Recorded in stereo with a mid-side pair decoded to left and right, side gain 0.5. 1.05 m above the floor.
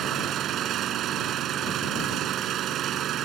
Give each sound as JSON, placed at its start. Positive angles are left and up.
{"t": 0.0, "sound": "an engine running", "azimuth_deg": -65}